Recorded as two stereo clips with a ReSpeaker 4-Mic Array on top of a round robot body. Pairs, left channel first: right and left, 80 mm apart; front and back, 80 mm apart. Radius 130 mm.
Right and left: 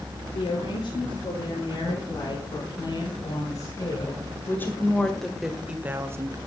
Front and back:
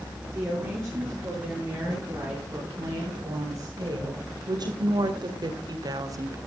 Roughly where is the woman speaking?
Behind right.